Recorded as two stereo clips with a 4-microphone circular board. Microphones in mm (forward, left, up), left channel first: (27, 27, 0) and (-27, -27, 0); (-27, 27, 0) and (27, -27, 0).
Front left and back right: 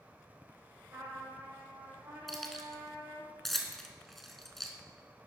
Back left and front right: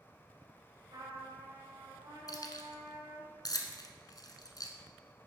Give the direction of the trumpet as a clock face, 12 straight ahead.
3 o'clock.